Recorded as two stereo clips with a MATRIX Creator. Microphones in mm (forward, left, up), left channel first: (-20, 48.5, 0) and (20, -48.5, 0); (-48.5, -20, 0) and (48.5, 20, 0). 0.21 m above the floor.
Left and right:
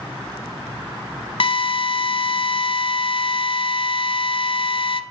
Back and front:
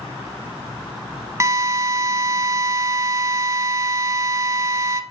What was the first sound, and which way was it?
A drill, 85° left.